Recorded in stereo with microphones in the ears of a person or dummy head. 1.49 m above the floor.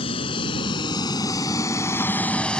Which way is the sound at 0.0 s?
35° left (ahead or behind).